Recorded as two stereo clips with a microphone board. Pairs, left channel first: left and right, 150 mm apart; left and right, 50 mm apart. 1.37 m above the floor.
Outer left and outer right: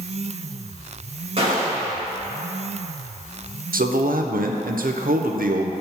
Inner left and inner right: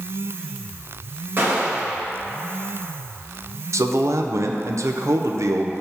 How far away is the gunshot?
About 1.6 m.